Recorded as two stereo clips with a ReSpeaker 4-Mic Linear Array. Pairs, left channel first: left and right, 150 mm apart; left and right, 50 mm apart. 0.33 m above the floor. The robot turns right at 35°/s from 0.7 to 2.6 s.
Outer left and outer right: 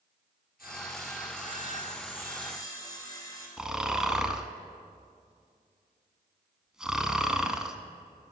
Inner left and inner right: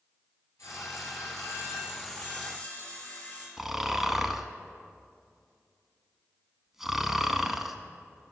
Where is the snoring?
5° right (ahead or behind), 0.5 m.